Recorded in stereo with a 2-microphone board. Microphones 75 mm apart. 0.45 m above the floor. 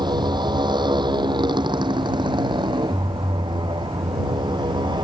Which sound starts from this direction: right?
A motorcycle, at 0.0 s.